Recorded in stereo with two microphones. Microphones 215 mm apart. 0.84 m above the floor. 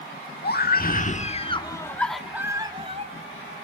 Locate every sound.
0.4 s a scream: 50° left (ahead or behind), 1.9 m; by 3.5 s 45° right (ahead or behind), 1.7 m